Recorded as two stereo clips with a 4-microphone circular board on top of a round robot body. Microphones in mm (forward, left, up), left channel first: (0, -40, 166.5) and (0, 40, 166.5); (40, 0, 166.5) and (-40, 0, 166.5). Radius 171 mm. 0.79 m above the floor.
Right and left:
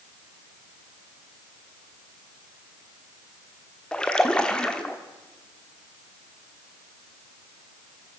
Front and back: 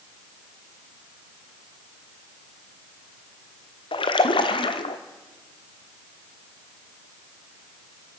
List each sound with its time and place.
3.9 s a splash: 10° right, 1.0 m